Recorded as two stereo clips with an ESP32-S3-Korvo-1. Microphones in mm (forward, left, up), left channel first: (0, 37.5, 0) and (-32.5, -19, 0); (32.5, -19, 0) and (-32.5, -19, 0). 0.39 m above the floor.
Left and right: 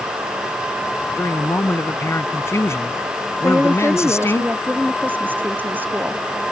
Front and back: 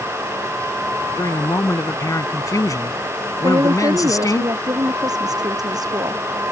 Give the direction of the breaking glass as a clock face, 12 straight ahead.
No breaking glass in this recording.